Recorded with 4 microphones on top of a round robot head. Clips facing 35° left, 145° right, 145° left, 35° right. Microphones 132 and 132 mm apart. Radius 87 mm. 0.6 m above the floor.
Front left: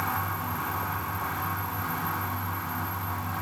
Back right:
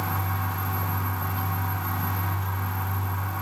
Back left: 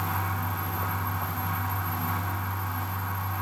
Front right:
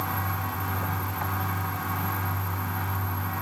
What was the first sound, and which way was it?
Only background noise.